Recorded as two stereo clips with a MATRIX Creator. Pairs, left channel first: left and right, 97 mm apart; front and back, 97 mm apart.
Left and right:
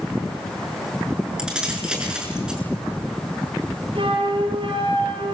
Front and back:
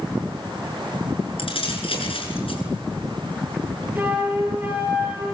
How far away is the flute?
About 7.5 m.